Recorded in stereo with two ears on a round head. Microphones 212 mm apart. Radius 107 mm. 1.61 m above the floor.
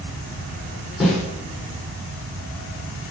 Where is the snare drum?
Centre (ahead or behind), 6 m.